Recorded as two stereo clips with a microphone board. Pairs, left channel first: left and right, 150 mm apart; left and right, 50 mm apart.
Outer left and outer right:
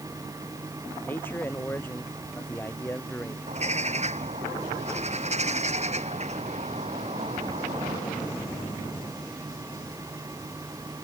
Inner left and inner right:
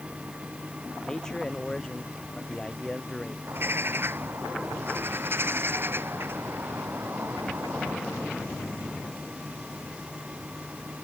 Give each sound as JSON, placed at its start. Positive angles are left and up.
{"t": 1.0, "sound": "a man speaking", "side_deg": 15}
{"t": 3.5, "sound": "a bird", "side_deg": -45}